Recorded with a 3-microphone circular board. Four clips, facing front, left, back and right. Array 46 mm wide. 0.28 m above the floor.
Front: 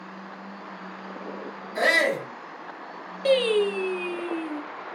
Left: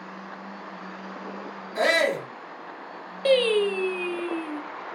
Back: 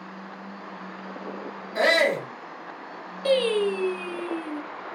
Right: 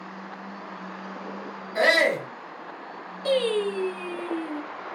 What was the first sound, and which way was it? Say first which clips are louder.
A shout: right 2 dB, back 1 dB; 125° right.